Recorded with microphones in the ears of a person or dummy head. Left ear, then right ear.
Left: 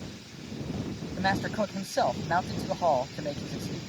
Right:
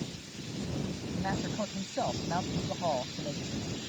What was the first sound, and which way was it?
A man speaking, 65° left (ahead or behind).